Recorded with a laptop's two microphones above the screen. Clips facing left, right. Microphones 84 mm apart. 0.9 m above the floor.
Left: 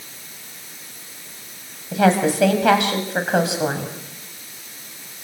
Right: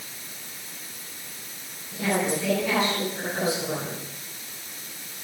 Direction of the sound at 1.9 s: 80° left.